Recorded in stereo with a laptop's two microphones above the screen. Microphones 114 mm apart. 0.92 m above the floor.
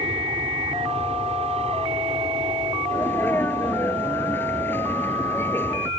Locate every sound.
0.0 s an aircraft: 55° right (ahead or behind)
2.9 s a sneeze: 15° left (ahead or behind)